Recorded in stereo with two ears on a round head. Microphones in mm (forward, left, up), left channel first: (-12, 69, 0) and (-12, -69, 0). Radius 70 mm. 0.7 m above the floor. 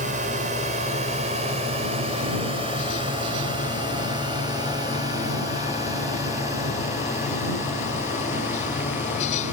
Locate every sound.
0.0 s a drone: 55° right (ahead or behind); by 9.5 s 15° right (ahead or behind)